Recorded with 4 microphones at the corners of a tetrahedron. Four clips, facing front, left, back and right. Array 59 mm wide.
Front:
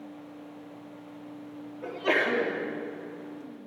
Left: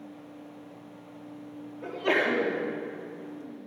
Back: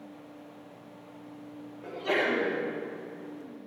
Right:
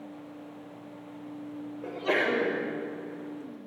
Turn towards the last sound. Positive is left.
turn(degrees=50)